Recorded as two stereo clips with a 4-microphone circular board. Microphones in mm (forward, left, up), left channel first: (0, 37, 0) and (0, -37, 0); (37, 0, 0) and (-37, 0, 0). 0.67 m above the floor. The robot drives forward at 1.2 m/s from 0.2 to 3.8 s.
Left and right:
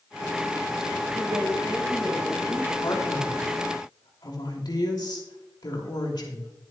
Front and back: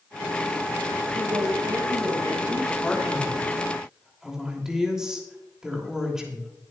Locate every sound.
1.1 s a woman speaking: 140° right, 1.7 m; by 2.7 s 160° right, 3.5 m
2.8 s a man speaking: 75° left, 3 m; by 6.5 s 100° left, 3 m